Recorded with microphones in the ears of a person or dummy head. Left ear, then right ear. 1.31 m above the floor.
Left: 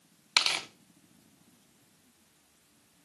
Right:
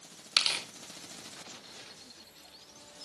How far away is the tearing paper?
About 0.6 m.